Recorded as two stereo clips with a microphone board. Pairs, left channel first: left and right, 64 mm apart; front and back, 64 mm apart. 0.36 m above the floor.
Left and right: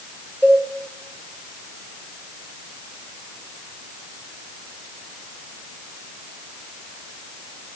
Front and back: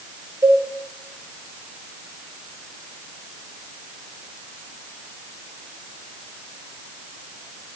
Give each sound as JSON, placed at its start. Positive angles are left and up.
{"t": 0.4, "sound": "a cowbell", "azimuth_deg": 160, "distance_m": 5.5}